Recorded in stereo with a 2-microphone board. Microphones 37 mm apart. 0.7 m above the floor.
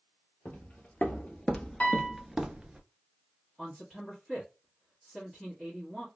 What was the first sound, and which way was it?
Footsteps, 50° left (ahead or behind).